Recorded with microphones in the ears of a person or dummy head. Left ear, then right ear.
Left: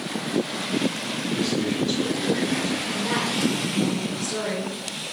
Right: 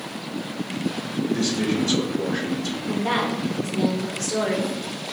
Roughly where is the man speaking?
Right.